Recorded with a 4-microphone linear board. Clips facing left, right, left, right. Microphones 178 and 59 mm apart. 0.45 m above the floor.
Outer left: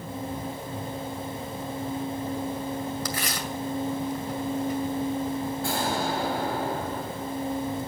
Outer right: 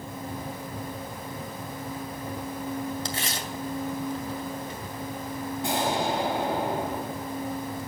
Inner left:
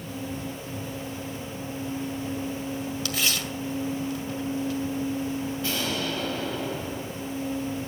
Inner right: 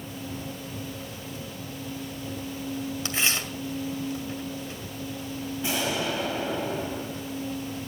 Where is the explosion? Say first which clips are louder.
Outer right 4 dB, inner right 5 dB; 20° right (ahead or behind), 3.5 m.